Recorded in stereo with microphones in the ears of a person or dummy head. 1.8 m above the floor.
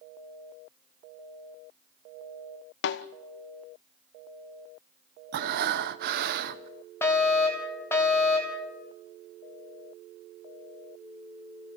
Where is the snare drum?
70° left (ahead or behind), 1.1 m.